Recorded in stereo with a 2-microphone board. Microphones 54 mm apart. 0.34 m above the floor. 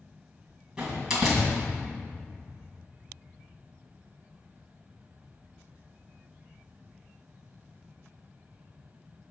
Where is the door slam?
10° right (ahead or behind), 2.0 m.